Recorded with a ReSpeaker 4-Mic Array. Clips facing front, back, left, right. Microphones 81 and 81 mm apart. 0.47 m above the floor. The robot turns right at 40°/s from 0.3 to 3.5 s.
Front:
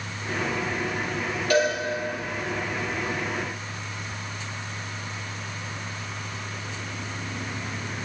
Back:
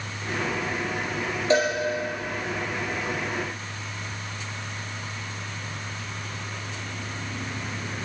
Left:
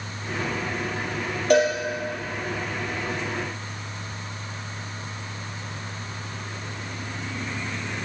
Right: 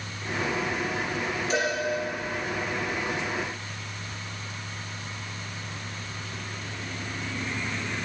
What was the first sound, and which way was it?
A cowbell, 115° left.